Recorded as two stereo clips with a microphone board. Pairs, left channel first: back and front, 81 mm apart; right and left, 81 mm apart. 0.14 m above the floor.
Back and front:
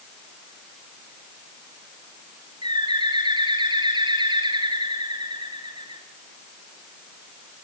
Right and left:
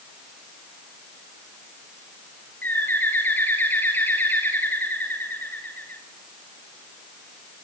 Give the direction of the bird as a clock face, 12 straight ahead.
1 o'clock.